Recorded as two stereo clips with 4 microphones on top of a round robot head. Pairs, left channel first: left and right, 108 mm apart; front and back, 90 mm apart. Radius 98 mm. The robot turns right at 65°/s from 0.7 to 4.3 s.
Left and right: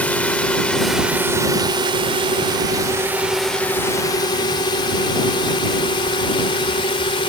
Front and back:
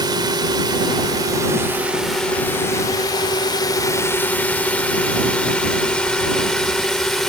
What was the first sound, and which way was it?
A drone, 165° left.